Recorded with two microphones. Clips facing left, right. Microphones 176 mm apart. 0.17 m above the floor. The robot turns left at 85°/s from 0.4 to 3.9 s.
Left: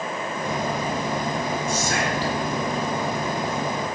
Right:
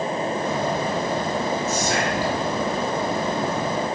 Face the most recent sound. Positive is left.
turn(degrees=165)